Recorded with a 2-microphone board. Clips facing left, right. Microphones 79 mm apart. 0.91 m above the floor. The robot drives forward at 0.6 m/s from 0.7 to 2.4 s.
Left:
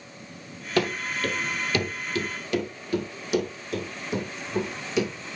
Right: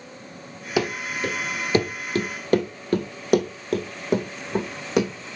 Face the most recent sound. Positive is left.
turn(degrees=-65)  # may be behind; listen again after turning